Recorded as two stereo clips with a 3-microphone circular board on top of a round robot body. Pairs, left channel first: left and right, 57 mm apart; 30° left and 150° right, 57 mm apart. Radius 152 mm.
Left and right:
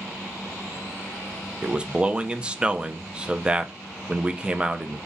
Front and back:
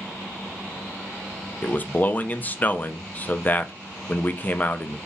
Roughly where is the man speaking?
Ahead.